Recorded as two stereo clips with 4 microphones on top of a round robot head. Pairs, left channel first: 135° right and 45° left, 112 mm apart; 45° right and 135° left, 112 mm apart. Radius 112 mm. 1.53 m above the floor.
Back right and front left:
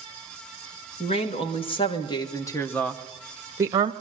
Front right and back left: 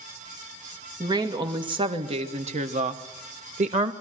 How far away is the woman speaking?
About 2.5 m.